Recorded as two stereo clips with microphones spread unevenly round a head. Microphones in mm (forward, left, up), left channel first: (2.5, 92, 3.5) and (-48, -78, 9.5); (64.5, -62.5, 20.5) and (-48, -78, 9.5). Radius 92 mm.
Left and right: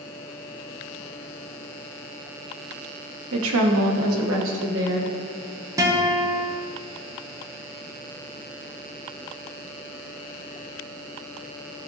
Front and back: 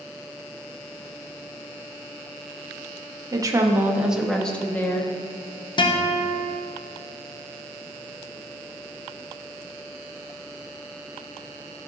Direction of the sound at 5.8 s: 35° right.